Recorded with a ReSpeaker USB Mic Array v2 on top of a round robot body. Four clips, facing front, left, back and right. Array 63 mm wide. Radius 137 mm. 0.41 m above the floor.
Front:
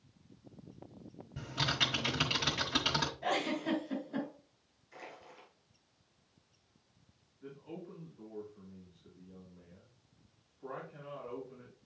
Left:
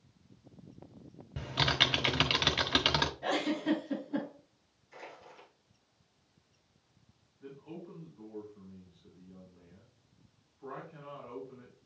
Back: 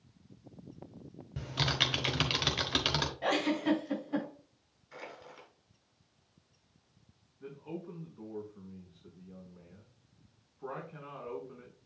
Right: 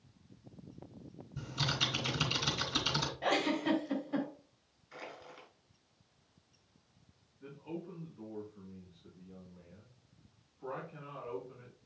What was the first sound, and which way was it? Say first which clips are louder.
Typing on a keyboard: left 6 dB, back 1 dB; 105° left.